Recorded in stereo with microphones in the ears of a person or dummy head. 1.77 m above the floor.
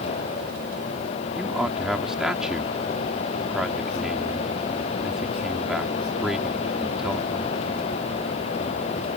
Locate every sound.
1.4 s a man speaking: centre (ahead or behind)